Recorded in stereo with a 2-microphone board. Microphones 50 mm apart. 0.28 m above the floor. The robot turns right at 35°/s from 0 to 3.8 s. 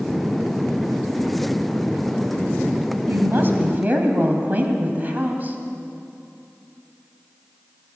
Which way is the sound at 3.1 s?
45° right (ahead or behind).